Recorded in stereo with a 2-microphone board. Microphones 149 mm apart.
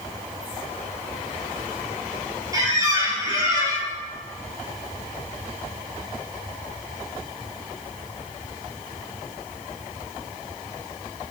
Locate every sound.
2.5 s a squeak: 25° right (ahead or behind), 2 m